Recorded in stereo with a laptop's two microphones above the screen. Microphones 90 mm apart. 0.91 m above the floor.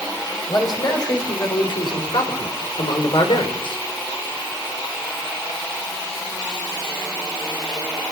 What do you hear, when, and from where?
0.5 s a man speaking: 50° left (ahead or behind), 5.5 m; by 3.8 s 75° left (ahead or behind), 4 m